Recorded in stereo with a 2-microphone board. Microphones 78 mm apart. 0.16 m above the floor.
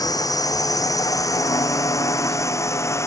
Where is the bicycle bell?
No bicycle bell in this recording.